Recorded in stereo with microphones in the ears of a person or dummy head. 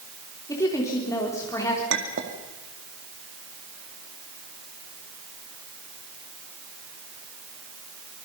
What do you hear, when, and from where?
0.5 s a woman speaking: 15° left (ahead or behind), 4 m
1.9 s a clink: 70° right (ahead or behind), 2.5 m